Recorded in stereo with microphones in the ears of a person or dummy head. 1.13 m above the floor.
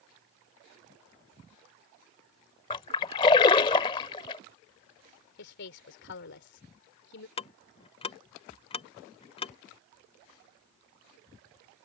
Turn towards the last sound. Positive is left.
turn(degrees=25)  # may be behind; listen again after turning